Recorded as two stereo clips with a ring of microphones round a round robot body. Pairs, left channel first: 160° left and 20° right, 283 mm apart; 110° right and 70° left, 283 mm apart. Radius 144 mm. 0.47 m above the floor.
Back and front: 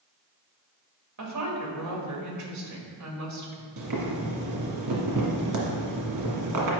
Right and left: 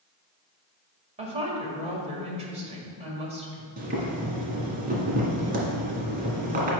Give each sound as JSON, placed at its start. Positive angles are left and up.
{"t": 1.2, "sound": "a woman speaking", "azimuth_deg": 0, "distance_m": 1.8}
{"t": 3.8, "sound": "boiling", "azimuth_deg": 5, "distance_m": 1.7}